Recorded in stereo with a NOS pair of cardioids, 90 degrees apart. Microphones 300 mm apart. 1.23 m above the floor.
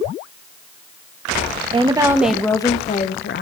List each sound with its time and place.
1.7 s a woman speaking: 20° right, 1.1 m; by 3.4 s 40° left, 1.1 m